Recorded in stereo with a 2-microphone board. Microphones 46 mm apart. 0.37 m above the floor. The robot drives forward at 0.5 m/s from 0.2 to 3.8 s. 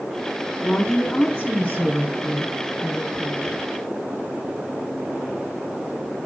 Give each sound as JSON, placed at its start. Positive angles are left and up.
{"t": 0.6, "sound": "a woman speaking", "side_deg": 30, "distance_m": 3.5}